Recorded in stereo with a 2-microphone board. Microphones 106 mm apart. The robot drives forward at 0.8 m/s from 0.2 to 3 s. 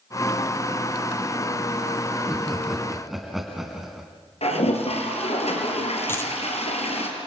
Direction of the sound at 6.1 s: 20° left (ahead or behind).